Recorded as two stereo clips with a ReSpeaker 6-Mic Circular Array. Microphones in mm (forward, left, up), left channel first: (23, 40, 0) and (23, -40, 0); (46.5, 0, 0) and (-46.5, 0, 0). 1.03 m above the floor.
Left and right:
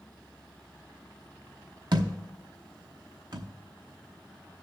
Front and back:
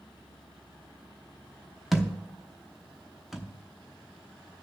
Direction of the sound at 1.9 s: 90° right.